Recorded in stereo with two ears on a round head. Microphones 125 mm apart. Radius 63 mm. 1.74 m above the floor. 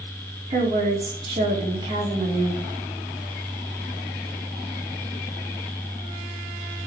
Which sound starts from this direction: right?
A woman speaking, at 0.5 s.